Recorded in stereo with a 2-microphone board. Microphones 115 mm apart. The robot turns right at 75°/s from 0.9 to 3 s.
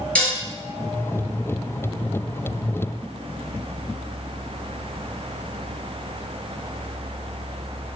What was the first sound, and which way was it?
Dishes clattering, 10° left (ahead or behind).